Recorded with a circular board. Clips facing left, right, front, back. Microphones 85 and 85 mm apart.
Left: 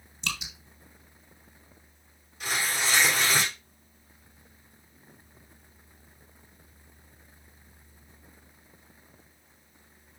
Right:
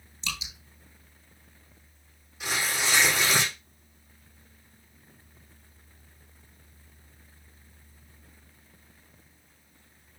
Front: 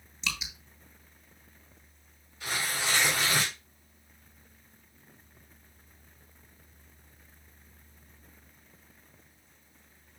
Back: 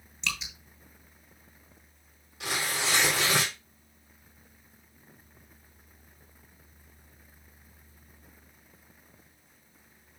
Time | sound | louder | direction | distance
0.2 | dripping | left 2 dB, back 1 dB | 90° left | 3 m
2.4 | tearing paper | even, back 1 dB | 175° right | 4 m